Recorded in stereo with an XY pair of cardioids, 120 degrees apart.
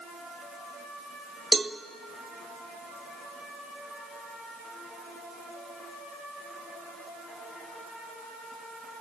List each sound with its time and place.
1.5 s a cowbell: 20° right, 0.8 m